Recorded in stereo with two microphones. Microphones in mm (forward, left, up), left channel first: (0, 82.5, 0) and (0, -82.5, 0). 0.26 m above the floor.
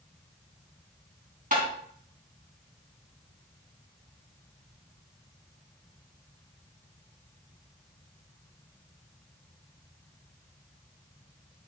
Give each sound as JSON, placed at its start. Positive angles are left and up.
{"t": 1.5, "sound": "tapping", "side_deg": -55, "distance_m": 3.0}